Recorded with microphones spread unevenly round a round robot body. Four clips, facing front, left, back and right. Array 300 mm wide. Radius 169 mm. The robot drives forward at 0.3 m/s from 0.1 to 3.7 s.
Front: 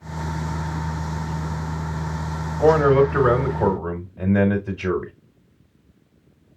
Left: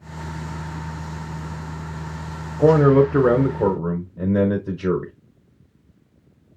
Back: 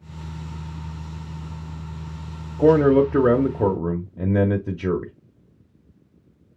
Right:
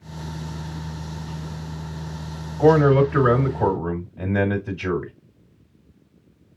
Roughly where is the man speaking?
Behind left.